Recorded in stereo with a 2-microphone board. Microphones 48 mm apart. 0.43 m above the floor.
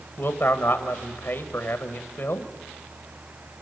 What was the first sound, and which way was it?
A man speaking, 55° left (ahead or behind).